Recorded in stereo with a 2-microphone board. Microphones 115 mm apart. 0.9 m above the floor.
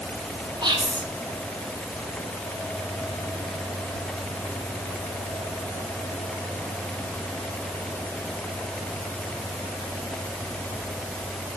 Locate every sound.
0.6 s whispering: 40° right (ahead or behind), 1.3 m